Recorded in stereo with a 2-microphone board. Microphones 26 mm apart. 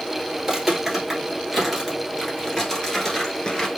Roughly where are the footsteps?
Centre.